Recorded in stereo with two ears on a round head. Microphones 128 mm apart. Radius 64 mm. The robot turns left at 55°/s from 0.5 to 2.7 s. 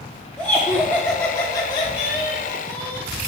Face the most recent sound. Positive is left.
turn(degrees=15)  # may be behind; listen again after turning